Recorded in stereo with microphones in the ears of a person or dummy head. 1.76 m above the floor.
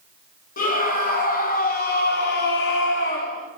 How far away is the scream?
About 2.5 m.